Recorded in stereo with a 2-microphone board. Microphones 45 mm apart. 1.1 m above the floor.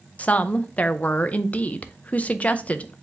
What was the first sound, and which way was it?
A woman speaking, 35° left (ahead or behind).